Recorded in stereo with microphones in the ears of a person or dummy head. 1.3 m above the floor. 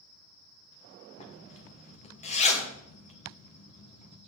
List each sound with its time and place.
1.2 s a zipper: 30° left (ahead or behind), 1.2 m